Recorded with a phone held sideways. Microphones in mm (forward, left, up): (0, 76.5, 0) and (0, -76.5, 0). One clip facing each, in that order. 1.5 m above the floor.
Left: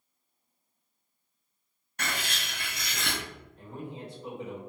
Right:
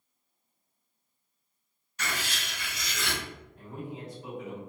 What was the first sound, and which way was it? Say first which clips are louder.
Writing: even; 55° left (ahead or behind).